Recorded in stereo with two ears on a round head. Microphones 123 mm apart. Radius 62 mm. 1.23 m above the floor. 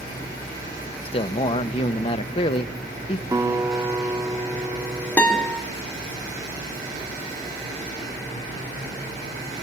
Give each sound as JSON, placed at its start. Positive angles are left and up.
{"t": 1.1, "sound": "a man speaking", "side_deg": 40, "distance_m": 1.1}
{"t": 3.3, "sound": "a guitar", "side_deg": -25, "distance_m": 3.0}
{"t": 5.2, "sound": "a guitar", "side_deg": 10, "distance_m": 4.5}